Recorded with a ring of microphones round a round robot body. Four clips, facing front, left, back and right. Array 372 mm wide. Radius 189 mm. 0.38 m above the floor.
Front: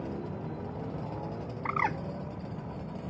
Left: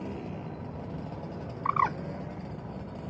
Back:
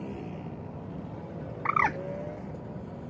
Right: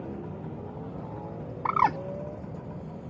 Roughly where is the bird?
Behind right.